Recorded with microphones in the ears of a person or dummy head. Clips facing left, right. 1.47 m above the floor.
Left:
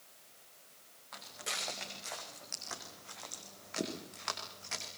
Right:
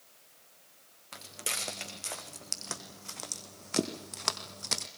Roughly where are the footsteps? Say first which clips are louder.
Right 3 dB; right.